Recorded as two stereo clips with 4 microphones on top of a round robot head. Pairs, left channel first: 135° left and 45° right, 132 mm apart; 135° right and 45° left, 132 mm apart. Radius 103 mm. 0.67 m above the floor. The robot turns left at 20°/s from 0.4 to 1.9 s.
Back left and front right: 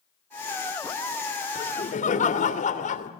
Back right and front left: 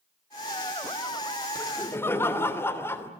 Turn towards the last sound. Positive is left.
turn(degrees=155)